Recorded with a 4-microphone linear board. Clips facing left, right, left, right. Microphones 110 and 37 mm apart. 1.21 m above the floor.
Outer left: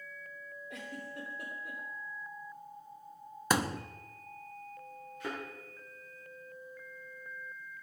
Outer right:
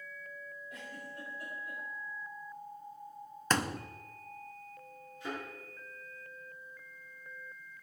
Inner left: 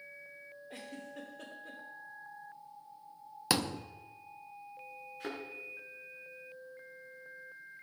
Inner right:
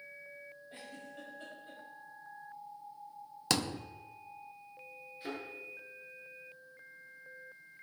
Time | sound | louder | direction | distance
0.7 | a giggle | outer left 5 dB, inner left 4 dB | 80° left | 3 m
3.5 | a thud | outer left 1 dB, inner left 1 dB | 10° left (ahead or behind) | 0.6 m
5.2 | a thud | even, even | 80° left | 7 m